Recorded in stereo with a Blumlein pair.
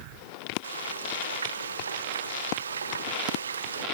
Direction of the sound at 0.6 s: 70° right.